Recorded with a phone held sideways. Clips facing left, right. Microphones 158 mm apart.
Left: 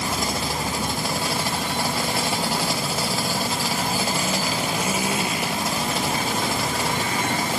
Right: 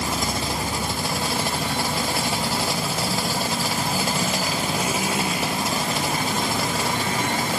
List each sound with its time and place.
Only background noise.